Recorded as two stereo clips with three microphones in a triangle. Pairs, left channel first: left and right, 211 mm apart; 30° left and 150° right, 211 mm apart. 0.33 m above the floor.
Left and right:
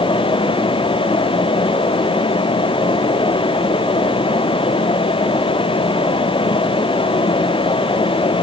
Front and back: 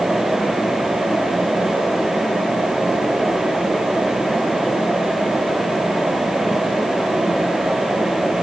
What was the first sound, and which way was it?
Only background noise.